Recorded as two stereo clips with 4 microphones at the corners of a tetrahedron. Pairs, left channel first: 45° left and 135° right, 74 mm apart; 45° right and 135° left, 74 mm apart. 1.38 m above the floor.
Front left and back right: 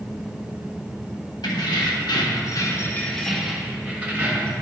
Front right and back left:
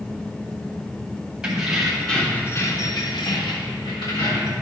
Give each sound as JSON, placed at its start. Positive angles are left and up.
{"t": 1.4, "sound": "keys jangling", "azimuth_deg": 55, "distance_m": 1.6}